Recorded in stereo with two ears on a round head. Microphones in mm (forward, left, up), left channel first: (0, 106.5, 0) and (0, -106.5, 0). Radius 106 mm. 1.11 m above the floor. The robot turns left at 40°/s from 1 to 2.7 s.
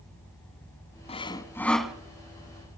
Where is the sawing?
30° left, 1.7 m; by 1.9 s 5° right, 1.7 m.